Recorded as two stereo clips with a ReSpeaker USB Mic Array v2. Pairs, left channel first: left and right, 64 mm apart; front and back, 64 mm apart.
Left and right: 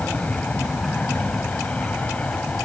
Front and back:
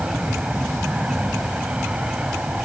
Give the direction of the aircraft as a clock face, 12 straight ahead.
8 o'clock.